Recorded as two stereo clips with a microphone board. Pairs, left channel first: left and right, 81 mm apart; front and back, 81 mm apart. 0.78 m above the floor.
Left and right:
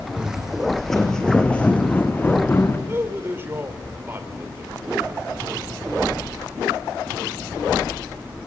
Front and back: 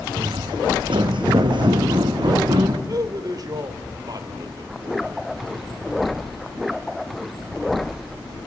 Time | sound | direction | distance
0.2 | footsteps | 170° right | 2.5 m
2.9 | a man speaking | 150° right | 3 m